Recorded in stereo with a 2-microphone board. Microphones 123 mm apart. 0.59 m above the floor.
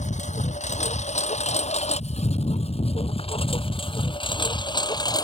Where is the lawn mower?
75° left (ahead or behind); by 5.2 s 30° left (ahead or behind).